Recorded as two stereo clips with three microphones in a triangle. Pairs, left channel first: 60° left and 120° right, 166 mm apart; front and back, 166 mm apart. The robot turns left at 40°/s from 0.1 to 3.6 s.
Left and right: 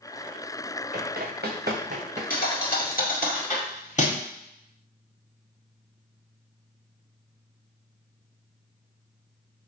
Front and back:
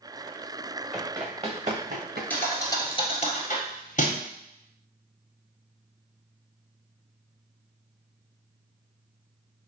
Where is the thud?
80° left, 1.3 m; by 4.2 s 30° left, 1.3 m.